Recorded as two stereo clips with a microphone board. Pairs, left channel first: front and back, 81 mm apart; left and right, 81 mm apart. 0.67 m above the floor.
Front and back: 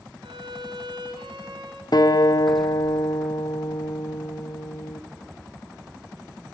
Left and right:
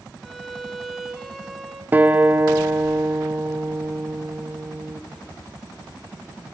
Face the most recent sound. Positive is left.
turn(degrees=-25)